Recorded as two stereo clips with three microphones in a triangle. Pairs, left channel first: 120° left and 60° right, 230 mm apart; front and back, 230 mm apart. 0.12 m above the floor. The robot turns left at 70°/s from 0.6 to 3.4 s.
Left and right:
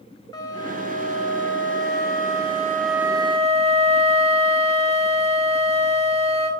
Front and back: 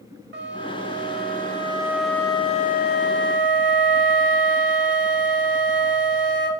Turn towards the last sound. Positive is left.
turn(degrees=-5)